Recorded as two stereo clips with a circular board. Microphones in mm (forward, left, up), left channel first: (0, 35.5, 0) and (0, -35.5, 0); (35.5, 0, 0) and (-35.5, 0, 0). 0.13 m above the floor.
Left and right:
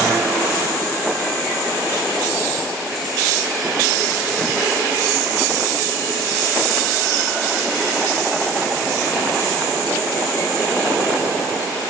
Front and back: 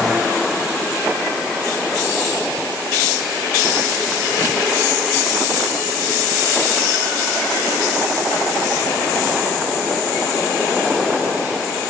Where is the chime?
I don't hear a chime.